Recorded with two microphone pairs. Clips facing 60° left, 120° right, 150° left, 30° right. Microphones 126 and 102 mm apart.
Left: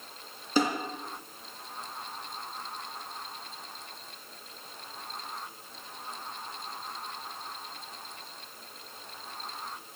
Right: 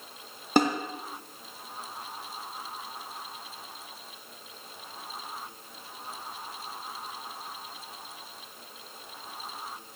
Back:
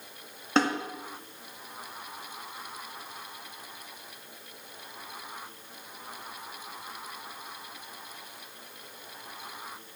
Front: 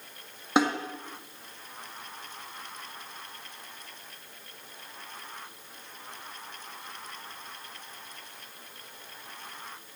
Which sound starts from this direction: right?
A snare drum, at 0.6 s.